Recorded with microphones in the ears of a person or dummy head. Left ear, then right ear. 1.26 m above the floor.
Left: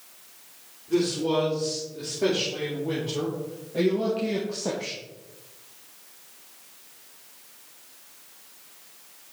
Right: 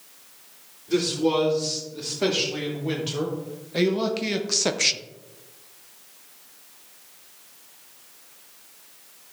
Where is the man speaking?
40° right (ahead or behind), 3.5 m; by 5.0 s 70° right (ahead or behind), 0.6 m.